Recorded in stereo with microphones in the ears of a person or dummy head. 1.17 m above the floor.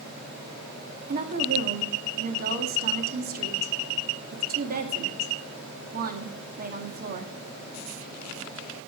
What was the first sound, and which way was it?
A woman speaking, 50° right (ahead or behind).